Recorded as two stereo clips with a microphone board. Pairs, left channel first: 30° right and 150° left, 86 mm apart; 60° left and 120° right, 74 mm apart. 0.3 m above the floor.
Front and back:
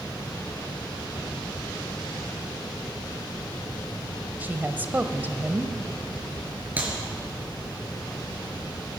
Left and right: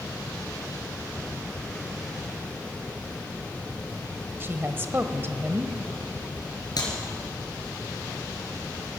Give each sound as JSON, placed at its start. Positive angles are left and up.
{"t": 4.4, "sound": "a woman speaking", "azimuth_deg": -155, "distance_m": 1.1}
{"t": 6.8, "sound": "a clap", "azimuth_deg": 80, "distance_m": 3.5}